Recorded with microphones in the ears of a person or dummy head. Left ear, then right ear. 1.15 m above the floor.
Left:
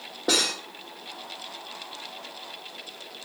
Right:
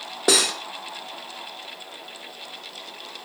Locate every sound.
0.3 s cutlery clinking: 40° right (ahead or behind), 0.5 m